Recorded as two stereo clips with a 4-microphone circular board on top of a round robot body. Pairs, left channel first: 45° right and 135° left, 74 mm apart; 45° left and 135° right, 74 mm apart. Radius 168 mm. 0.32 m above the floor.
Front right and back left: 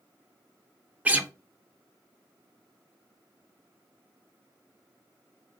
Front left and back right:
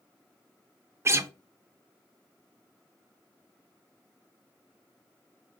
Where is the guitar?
165° right, 1.0 m.